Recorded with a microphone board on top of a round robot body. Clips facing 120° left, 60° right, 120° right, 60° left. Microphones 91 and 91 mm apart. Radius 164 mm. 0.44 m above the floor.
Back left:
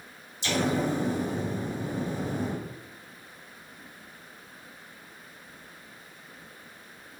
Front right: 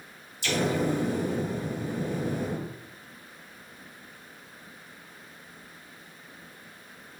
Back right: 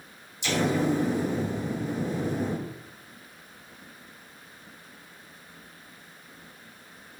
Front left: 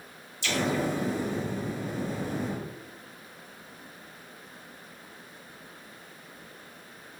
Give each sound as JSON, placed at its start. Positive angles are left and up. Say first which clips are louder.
{"t": 0.4, "sound": "an explosion", "louder": "even, back right 3 dB", "azimuth_deg": 170, "distance_m": 1.2}